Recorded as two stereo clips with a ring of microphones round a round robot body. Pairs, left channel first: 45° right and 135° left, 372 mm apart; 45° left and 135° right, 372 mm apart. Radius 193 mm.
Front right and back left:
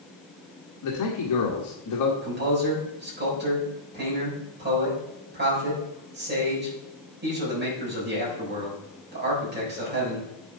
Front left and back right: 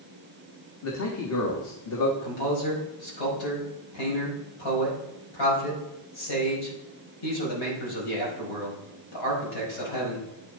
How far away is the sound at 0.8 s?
About 1.5 m.